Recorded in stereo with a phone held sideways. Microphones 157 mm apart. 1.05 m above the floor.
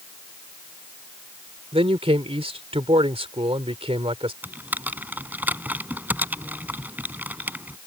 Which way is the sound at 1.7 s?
40° right (ahead or behind).